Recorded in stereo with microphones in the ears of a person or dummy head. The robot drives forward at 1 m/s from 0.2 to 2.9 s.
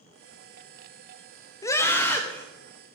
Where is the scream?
10° left (ahead or behind), 0.6 m; by 2.4 s 5° left (ahead or behind), 1.4 m.